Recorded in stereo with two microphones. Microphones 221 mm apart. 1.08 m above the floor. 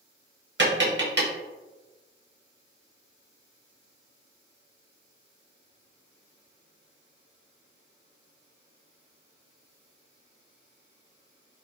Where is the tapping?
60° right (ahead or behind), 0.9 m.